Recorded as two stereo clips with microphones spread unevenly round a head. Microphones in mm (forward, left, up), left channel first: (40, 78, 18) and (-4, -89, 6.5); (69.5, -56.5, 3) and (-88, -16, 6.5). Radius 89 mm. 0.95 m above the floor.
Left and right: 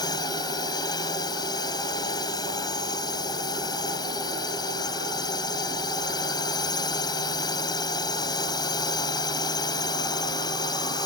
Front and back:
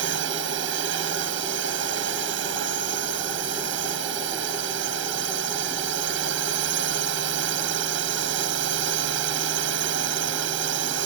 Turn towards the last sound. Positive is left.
turn(degrees=145)